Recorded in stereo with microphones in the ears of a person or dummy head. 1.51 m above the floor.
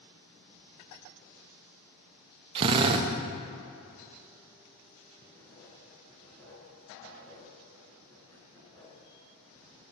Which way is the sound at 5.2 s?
10° left (ahead or behind).